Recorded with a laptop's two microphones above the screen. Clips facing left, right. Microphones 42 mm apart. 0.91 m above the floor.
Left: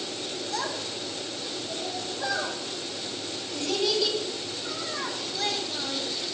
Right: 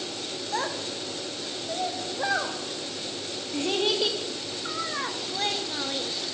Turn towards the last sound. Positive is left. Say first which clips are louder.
# right 3 dB
turn(degrees=-35)  # may be behind; listen again after turning